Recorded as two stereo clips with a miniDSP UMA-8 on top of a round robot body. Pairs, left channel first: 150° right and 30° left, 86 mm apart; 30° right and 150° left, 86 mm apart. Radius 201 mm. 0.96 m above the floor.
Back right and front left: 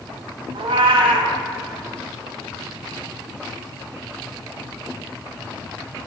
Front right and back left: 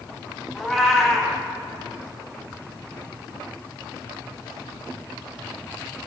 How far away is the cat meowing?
About 0.6 m.